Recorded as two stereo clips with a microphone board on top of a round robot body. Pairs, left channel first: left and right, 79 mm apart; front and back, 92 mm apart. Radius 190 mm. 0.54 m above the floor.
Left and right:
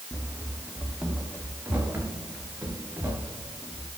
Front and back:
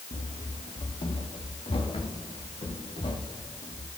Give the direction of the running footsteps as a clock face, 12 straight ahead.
12 o'clock.